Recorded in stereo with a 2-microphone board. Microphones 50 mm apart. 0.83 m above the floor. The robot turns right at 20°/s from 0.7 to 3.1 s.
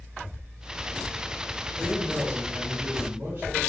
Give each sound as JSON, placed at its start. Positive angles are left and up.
{"t": 1.8, "sound": "a man speaking", "side_deg": -25, "distance_m": 2.0}